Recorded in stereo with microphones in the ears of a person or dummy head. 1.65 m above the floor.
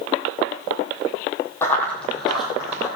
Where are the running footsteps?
15° left (ahead or behind), 3 m; by 2.9 s 15° right (ahead or behind), 2.5 m.